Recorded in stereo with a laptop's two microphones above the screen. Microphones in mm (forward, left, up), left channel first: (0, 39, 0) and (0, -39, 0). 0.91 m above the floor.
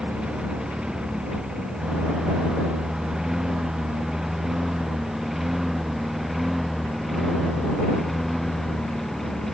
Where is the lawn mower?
10° right (ahead or behind); by 9.5 s 5° left (ahead or behind).